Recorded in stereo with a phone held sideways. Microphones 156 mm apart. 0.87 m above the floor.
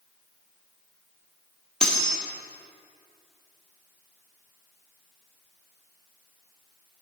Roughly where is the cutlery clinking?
Centre.